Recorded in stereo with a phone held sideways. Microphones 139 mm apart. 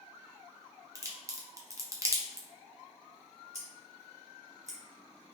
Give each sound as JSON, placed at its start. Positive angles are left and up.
{"t": 0.9, "sound": "a crack", "side_deg": -25, "distance_m": 0.5}
{"t": 3.5, "sound": "scissors", "side_deg": -25, "distance_m": 1.3}